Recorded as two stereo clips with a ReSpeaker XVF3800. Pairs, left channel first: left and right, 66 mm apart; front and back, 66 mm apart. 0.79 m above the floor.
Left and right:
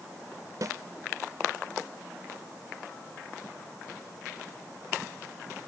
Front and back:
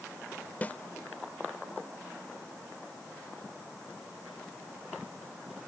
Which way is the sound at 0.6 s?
65° right.